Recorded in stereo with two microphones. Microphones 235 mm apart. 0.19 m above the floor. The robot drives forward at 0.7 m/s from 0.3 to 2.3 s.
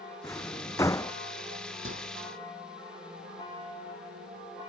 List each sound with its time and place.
0.2 s a drawer: 10° left (ahead or behind); by 1.1 s 15° left (ahead or behind)
1.9 s a microwave: 60° right (ahead or behind)